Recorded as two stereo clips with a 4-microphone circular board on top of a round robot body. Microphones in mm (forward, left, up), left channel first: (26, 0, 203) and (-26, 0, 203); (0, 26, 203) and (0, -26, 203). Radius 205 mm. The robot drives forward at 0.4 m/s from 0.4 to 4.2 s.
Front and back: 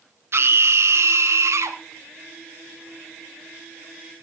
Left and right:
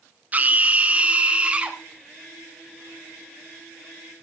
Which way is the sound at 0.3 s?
150° right.